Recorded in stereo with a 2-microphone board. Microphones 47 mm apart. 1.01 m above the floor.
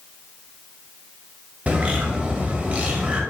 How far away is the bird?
About 0.8 m.